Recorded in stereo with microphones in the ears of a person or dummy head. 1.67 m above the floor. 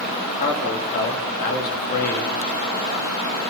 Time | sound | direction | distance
0.4 | a man speaking | 55° left (ahead or behind) | 3.5 m